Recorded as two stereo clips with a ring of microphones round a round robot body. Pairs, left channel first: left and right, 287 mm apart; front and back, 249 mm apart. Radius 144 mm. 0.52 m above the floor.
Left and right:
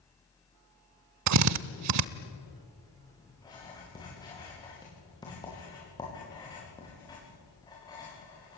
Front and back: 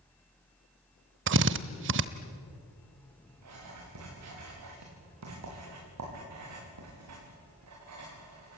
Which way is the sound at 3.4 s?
165° left.